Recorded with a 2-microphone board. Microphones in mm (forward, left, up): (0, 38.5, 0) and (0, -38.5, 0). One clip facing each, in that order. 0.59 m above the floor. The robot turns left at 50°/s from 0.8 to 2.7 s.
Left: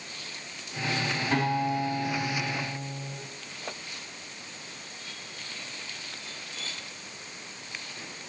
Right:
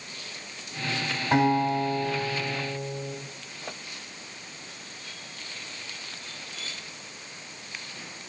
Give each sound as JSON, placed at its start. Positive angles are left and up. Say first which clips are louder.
{"t": 1.3, "sound": "a guitar", "louder": "right 6 dB", "azimuth_deg": -20, "distance_m": 3.5}